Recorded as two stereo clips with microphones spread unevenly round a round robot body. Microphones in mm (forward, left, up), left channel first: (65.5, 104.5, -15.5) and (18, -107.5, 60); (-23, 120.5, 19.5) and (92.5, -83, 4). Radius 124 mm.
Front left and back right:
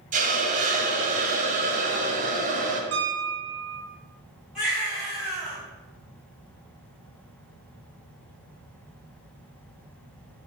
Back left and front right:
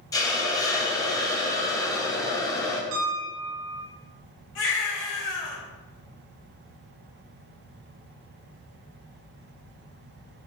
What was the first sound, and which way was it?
A hiss, 165° right.